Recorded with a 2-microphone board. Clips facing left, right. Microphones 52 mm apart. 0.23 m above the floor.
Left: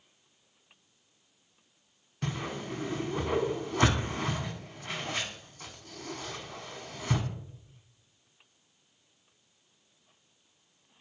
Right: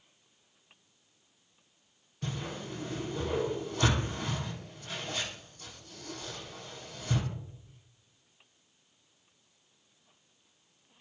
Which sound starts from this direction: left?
A whoosh, at 2.2 s.